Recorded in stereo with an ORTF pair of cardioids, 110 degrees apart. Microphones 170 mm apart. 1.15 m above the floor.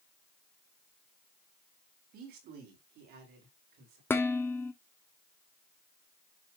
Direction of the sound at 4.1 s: 10° left.